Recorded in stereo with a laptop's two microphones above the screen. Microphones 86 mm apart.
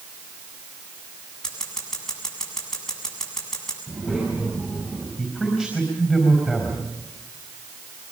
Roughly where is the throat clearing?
No throat clearing in this recording.